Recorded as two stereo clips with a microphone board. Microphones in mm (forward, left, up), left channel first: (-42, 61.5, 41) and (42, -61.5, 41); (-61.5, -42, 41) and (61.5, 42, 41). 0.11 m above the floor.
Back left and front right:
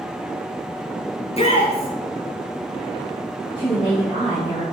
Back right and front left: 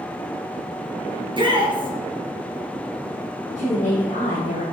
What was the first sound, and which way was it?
A shout, 85° left.